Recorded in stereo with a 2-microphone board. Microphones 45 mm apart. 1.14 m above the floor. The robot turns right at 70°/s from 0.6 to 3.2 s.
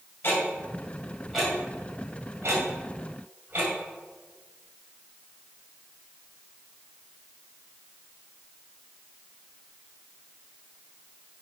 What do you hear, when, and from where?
0.2 s ticking: 50° left (ahead or behind), 2.5 m; by 3.7 s 50° right (ahead or behind), 2.5 m